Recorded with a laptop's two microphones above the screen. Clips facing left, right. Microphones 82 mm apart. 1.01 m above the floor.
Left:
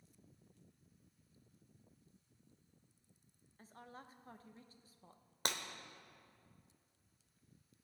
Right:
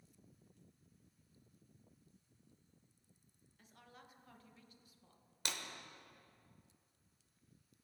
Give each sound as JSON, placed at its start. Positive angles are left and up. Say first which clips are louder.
{"t": 3.6, "sound": "a woman speaking", "louder": "left 6 dB", "side_deg": 30, "distance_m": 0.8}
{"t": 5.5, "sound": "breaking glass", "louder": "left 5 dB", "side_deg": 45, "distance_m": 0.9}